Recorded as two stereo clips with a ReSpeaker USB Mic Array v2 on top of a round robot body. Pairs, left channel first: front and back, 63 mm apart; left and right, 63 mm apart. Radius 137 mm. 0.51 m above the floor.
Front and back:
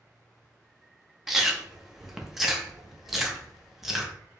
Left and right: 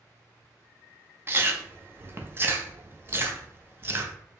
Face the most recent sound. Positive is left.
turn(degrees=-95)